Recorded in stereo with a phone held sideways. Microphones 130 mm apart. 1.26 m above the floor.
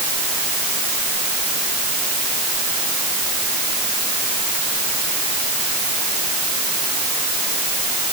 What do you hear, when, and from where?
Only background noise.